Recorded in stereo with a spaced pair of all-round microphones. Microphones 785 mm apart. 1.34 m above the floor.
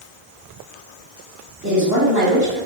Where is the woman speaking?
30° right (ahead or behind), 2.5 m.